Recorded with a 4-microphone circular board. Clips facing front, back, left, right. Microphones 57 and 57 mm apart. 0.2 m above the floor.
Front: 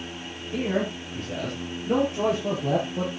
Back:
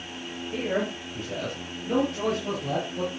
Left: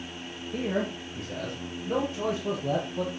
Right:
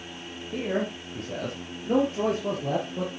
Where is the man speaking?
105° right, 5 m; by 3.1 s 55° right, 4 m.